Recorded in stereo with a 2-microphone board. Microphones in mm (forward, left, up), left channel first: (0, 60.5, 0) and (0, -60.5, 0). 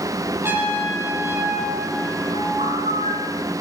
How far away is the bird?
About 6 m.